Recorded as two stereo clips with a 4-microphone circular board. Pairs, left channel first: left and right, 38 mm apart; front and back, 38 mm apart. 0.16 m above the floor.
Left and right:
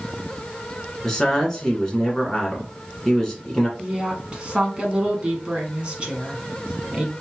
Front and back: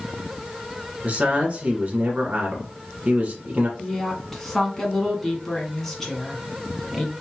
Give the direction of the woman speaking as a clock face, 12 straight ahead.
2 o'clock.